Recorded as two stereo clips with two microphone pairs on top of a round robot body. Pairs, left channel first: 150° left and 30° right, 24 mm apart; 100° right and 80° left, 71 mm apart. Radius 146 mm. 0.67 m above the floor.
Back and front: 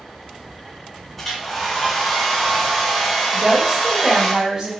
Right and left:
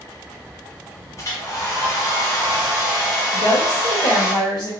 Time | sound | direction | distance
1.2 | a hair dryer | 135° right | 1.4 m
3.3 | a woman speaking | 90° right | 1.5 m